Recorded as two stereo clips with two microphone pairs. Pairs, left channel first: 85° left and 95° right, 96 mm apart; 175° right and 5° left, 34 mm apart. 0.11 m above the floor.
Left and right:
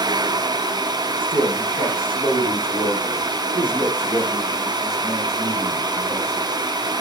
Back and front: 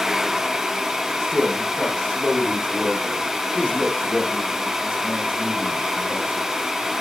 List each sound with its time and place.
1.2 s a man speaking: 120° right, 7.5 m; by 6.5 s 155° right, 7 m